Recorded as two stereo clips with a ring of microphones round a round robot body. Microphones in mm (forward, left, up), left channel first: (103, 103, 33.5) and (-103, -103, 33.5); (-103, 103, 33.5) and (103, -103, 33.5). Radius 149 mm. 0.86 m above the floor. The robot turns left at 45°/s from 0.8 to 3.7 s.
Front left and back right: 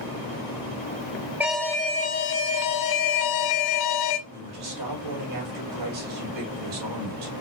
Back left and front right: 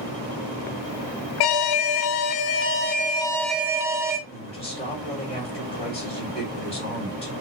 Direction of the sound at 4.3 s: 155° right.